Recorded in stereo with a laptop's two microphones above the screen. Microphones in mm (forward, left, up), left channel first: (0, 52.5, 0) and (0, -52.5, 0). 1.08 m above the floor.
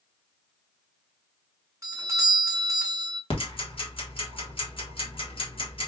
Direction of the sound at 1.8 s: 30° right (ahead or behind).